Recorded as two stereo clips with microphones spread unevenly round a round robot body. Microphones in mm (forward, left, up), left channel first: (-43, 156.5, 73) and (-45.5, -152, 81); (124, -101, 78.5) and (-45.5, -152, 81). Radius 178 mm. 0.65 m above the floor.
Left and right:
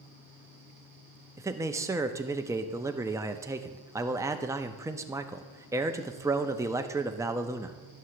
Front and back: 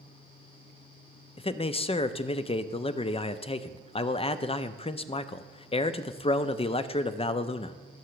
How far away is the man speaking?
About 0.6 m.